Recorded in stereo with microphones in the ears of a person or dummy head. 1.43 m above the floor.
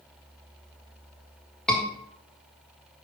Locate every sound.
1.7 s a scream: centre (ahead or behind), 1.8 m